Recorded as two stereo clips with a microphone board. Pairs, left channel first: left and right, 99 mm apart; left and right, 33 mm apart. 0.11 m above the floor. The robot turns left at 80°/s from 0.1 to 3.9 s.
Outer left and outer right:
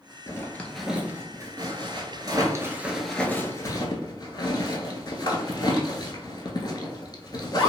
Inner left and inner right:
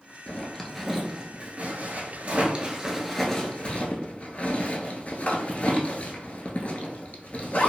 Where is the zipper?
30° left (ahead or behind), 0.6 m; by 7.7 s 45° left (ahead or behind), 0.6 m.